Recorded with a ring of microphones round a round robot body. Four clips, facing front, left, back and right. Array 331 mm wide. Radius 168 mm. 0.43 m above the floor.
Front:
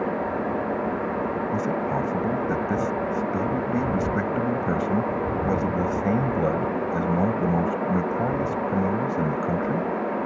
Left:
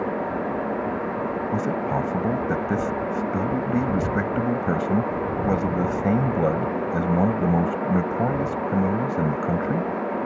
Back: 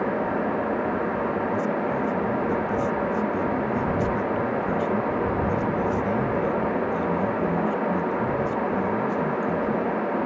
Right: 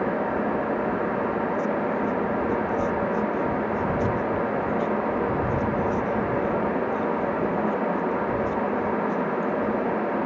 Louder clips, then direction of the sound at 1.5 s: Even, even; 70° left.